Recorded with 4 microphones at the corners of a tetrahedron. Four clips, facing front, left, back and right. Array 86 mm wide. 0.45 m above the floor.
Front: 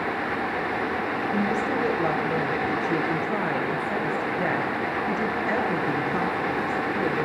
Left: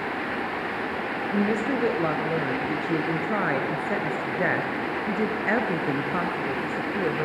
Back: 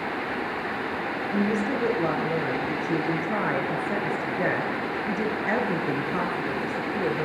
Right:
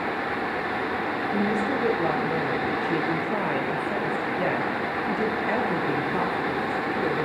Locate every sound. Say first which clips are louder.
1.3 s a woman speaking: left 1 dB, back 1 dB; 115° left, 6 m